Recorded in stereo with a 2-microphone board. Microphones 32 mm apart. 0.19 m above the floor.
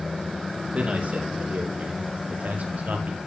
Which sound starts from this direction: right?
A man speaking, at 0.7 s.